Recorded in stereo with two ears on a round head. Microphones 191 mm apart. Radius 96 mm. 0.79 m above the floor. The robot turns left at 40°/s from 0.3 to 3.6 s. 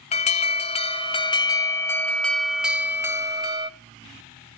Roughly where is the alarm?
Left.